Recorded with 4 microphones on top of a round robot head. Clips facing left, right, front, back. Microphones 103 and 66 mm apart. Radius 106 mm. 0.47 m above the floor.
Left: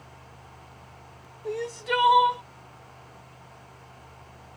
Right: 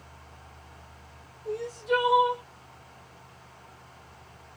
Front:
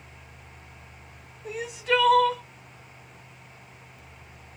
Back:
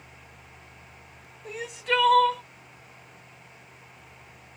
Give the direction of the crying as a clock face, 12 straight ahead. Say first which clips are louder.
Right 1 dB, front 2 dB; 9 o'clock.